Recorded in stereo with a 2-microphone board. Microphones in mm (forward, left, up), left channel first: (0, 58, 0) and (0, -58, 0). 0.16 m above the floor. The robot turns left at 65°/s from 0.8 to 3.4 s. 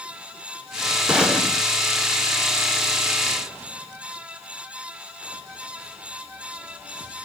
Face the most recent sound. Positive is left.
turn(degrees=50)